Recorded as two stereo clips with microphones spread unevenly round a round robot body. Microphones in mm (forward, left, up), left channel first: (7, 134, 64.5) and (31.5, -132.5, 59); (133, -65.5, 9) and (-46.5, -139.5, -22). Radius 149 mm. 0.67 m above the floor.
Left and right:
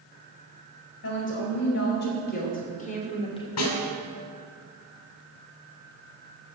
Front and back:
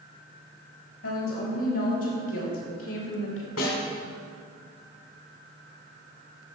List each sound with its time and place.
1.0 s a woman speaking: 55° left, 4 m; by 3.5 s 25° left, 2.5 m
3.6 s a snare drum: 65° left, 3 m